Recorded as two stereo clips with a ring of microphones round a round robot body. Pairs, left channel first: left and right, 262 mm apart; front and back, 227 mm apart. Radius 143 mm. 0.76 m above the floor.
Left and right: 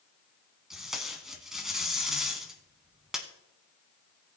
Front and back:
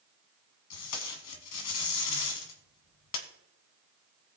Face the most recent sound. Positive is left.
turn(degrees=0)